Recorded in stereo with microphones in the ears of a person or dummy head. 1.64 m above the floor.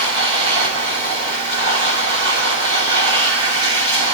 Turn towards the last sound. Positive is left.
turn(degrees=-25)  # may be behind; listen again after turning